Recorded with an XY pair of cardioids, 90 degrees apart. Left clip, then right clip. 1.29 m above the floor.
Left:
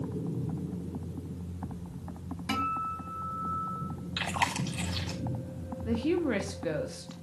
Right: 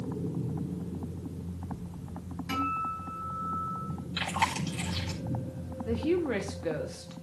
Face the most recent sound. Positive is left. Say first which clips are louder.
# even
turn(degrees=25)